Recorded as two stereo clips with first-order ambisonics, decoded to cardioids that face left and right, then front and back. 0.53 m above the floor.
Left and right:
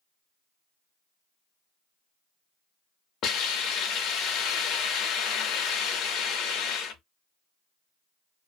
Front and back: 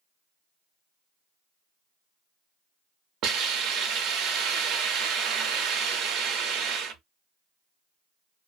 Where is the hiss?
140° left, 0.5 m.